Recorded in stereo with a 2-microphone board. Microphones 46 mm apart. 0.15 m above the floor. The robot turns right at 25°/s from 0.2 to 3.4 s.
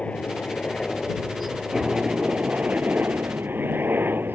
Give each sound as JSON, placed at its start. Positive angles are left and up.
{"t": 0.0, "sound": "a helicopter", "azimuth_deg": 150}